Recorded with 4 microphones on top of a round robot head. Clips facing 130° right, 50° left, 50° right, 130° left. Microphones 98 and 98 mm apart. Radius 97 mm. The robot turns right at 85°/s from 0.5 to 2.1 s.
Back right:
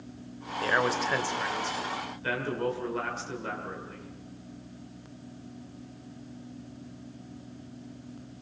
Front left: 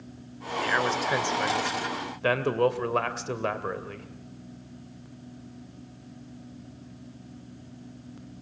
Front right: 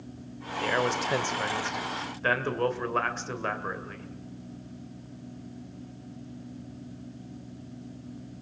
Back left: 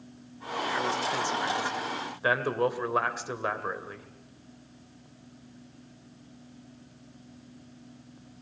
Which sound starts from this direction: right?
A man speaking, at 0.6 s.